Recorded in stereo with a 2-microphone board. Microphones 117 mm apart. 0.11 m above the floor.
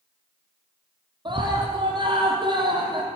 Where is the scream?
40° right (ahead or behind), 3.5 m.